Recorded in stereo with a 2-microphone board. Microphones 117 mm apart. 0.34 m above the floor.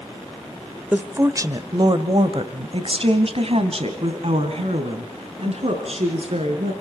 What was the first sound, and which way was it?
A woman speaking, 15° right (ahead or behind).